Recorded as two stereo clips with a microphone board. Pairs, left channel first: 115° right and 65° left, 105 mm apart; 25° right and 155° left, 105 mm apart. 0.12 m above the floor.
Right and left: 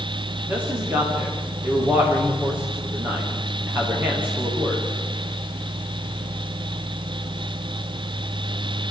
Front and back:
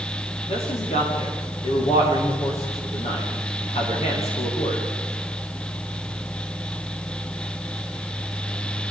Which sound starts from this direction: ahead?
A man speaking, at 0.5 s.